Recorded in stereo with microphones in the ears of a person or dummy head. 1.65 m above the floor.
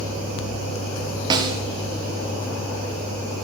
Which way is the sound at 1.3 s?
30° right (ahead or behind).